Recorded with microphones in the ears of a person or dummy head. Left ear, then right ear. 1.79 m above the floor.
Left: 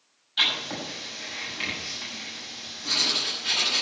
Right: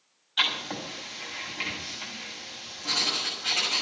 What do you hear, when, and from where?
0.4 s writing: 30° right (ahead or behind), 6.5 m